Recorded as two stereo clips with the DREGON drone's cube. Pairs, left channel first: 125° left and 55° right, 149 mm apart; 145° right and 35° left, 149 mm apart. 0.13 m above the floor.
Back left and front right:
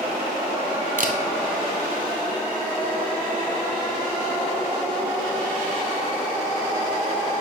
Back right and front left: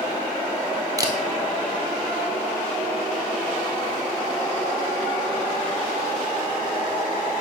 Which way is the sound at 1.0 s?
30° right.